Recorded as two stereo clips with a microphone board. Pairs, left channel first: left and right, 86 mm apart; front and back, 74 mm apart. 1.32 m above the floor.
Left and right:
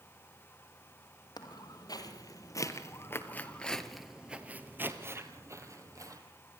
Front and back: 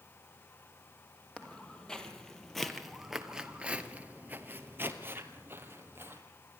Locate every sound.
1.4 s footsteps: 75° left, 2.5 m; by 6.2 s 125° right, 2.5 m